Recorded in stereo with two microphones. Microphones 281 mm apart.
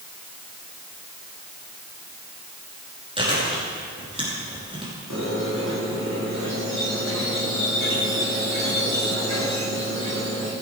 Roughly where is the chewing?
Centre.